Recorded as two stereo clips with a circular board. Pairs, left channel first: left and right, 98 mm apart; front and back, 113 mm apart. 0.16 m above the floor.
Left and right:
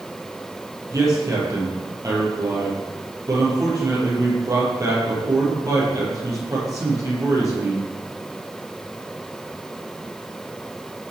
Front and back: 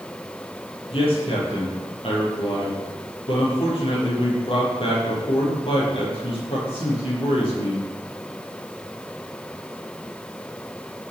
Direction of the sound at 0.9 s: 35° right.